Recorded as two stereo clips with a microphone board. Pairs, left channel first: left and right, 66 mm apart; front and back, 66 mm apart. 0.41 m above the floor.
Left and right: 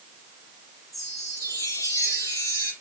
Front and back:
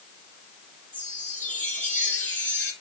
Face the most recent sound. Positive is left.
turn(degrees=60)